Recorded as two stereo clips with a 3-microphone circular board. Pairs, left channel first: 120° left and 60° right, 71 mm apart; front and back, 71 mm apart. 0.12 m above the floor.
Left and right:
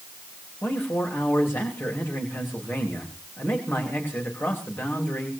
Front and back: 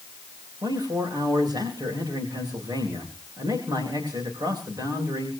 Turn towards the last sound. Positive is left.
turn(degrees=180)